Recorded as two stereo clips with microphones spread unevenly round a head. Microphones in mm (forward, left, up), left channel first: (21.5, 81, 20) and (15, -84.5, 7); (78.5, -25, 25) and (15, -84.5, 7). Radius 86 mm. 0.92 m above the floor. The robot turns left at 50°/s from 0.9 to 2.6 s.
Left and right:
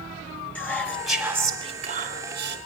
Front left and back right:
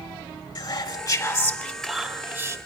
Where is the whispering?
5° left, 4 m; by 2.6 s 75° right, 4 m.